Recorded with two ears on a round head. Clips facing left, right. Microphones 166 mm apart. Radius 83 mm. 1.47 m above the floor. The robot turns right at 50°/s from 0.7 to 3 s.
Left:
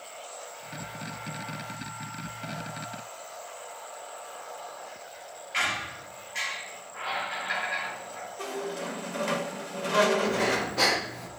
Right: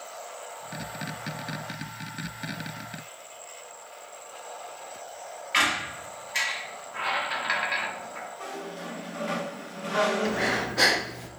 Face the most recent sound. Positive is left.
turn(degrees=-5)  # may be behind; listen again after turning